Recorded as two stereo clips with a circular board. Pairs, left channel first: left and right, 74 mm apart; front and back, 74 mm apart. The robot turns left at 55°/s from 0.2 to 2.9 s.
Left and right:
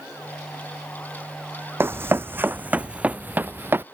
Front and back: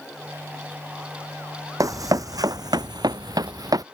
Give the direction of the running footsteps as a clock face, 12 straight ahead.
5 o'clock.